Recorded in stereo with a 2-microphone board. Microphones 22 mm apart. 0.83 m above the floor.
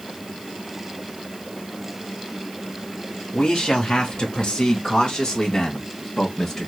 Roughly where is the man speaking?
Left.